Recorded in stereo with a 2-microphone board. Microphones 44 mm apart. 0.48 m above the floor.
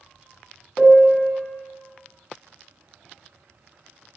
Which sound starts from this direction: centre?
A piano, at 0.8 s.